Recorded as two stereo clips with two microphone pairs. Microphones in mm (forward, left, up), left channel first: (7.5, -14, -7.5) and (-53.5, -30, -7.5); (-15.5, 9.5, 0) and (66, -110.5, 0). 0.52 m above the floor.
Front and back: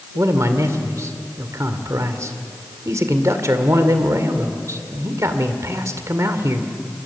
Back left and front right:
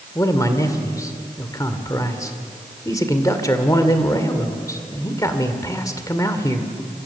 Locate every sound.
0.1 s a man speaking: 175° right, 1.9 m